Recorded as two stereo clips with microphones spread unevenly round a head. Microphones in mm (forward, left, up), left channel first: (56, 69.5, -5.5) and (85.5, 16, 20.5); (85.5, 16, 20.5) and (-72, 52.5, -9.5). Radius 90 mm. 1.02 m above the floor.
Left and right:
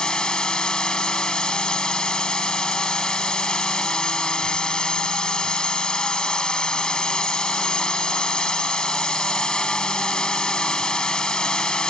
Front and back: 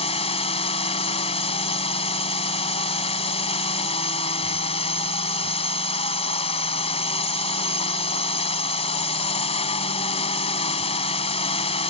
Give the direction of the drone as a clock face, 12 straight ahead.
11 o'clock.